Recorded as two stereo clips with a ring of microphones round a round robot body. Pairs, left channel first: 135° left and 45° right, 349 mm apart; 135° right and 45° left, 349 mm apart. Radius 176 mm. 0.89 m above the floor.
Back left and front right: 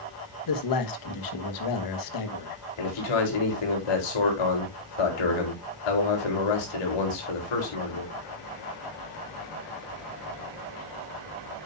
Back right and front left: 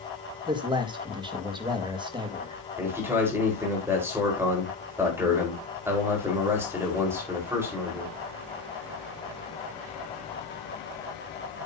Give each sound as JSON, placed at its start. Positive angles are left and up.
{"t": 0.5, "sound": "a man speaking", "azimuth_deg": 120, "distance_m": 1.6}
{"t": 2.8, "sound": "a man speaking", "azimuth_deg": 130, "distance_m": 4.0}